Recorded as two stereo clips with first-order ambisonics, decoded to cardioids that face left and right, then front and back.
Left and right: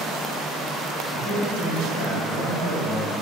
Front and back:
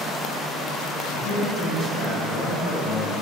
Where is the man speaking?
5° right, 1.1 m; by 3.2 s 45° right, 1.8 m.